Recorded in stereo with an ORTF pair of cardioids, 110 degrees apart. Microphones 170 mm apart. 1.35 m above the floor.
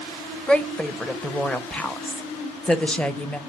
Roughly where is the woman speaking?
Ahead.